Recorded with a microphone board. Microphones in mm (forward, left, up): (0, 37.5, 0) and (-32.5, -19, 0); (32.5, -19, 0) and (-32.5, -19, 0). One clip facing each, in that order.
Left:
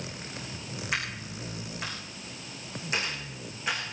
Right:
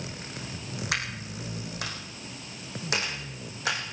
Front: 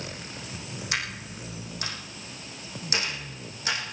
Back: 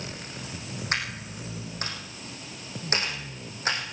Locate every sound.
0.9 s a dropped coin: 125° right, 5.5 m